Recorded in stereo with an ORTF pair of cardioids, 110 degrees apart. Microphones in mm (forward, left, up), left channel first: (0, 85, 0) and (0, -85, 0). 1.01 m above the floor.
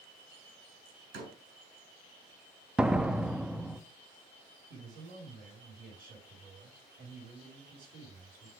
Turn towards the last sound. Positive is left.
turn(degrees=-60)